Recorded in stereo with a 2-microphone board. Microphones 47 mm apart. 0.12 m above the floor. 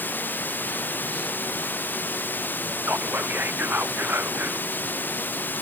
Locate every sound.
0.0 s running water: 45° left (ahead or behind)
2.8 s whispering: 40° right (ahead or behind)